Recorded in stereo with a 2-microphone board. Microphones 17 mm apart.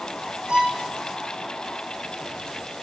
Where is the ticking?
I don't hear ticking.